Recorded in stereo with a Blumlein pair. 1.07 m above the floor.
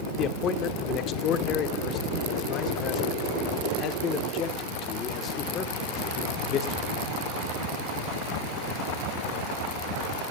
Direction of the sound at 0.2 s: 35° left.